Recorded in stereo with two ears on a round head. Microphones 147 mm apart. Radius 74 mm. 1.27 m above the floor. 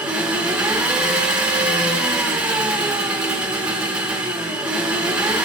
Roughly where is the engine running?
Centre.